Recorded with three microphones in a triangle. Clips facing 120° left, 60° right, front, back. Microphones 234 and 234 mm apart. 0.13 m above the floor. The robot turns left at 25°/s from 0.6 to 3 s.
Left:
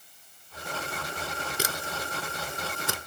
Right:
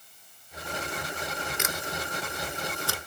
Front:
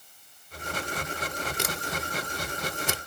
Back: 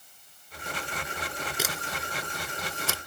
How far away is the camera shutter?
About 0.8 m.